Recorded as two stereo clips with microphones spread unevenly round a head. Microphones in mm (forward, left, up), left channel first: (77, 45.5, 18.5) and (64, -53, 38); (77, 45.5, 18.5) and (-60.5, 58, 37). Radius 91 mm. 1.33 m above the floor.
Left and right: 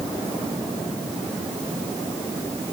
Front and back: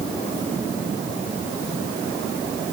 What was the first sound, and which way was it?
Only background noise.